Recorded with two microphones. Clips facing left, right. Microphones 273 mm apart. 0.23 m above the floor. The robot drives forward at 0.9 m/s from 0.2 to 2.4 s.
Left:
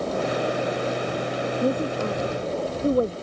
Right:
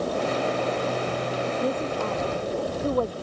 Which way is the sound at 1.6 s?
25° left (ahead or behind).